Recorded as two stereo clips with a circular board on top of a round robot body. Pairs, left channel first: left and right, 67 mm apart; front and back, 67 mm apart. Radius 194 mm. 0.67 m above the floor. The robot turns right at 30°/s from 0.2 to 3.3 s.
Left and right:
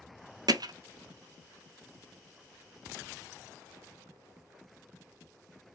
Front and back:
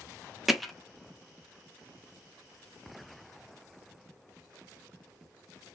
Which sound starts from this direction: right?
Hammering, at 0.5 s.